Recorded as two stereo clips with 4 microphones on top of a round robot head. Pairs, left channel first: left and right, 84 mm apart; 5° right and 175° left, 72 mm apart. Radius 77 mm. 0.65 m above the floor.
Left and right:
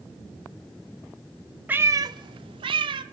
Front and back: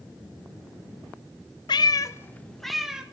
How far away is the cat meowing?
About 0.6 m.